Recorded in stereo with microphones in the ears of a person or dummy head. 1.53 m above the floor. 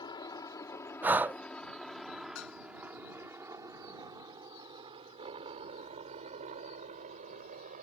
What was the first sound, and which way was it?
A helicopter, 25° left (ahead or behind).